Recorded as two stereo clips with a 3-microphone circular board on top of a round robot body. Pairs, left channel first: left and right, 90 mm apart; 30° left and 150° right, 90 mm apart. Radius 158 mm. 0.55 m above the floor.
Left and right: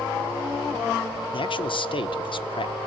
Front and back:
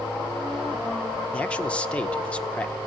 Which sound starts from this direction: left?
A man speaking, at 1.3 s.